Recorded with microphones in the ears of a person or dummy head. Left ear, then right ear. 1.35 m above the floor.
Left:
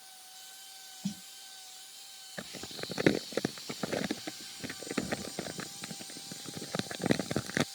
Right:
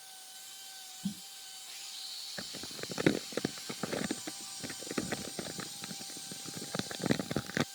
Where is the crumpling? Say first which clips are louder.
Even; 15° left (ahead or behind).